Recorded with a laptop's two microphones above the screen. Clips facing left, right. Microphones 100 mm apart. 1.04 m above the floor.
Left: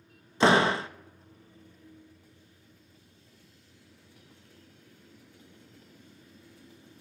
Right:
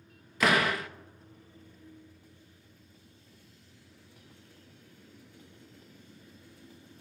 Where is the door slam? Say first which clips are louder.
Left 5 dB; 30° left (ahead or behind), 0.5 m.